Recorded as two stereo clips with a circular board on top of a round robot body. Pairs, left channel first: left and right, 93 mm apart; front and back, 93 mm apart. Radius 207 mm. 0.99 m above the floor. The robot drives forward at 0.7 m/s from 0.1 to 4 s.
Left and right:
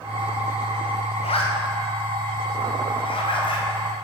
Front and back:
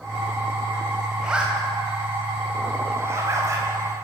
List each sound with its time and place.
1.2 s a zipper: 95° left, 3.5 m; by 3.7 s 120° left, 4 m